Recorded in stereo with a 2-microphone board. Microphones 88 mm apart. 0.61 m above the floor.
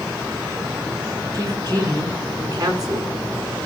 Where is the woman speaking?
40° right (ahead or behind), 7 m.